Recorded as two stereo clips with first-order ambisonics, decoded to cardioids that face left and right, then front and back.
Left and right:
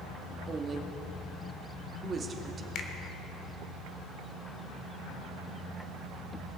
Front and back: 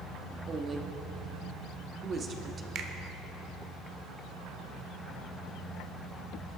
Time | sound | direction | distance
0.5 | a woman speaking | 135° right | 1.0 m
2.8 | a finger snap | 135° left | 1.3 m